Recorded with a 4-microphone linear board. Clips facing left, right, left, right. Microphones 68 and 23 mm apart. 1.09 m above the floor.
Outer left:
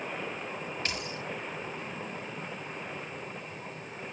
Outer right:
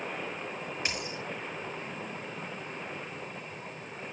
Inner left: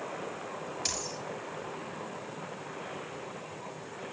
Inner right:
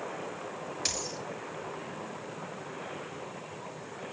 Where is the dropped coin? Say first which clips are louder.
Even, inner right 2 dB; 15° right (ahead or behind), 6.5 m.